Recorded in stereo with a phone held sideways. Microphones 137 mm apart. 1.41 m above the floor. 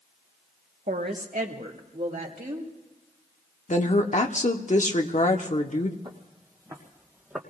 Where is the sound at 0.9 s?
70° right (ahead or behind), 1.2 m; by 2.7 s 75° right (ahead or behind), 3 m.